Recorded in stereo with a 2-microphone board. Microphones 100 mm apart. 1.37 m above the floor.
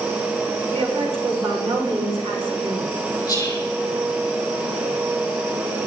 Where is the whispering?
40° left (ahead or behind), 5 m.